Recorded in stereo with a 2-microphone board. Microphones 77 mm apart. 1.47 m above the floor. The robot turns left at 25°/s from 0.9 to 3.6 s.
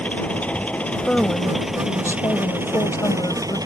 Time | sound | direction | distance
0.0 | an engine running | 15° left | ?
1.1 | a woman speaking | 170° left | ?